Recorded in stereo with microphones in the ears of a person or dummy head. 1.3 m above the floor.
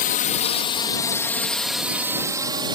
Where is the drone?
40° left (ahead or behind); by 2.8 s 25° right (ahead or behind).